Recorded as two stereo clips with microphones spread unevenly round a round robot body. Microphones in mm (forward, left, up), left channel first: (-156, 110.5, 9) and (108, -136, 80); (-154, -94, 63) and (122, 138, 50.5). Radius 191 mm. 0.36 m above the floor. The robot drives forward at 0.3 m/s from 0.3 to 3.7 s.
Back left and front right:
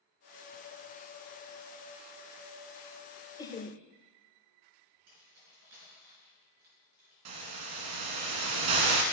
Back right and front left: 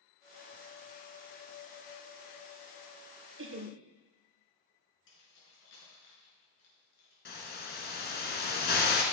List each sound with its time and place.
3.4 s laughter: 75° left, 1.1 m; by 3.8 s 80° left, 1.1 m
5.1 s keys jangling: 95° right, 5 m
7.2 s a hiss: 75° right, 1.4 m